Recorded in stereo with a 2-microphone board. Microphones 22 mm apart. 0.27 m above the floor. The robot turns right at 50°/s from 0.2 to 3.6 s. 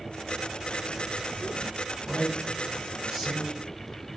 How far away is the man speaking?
About 1.8 m.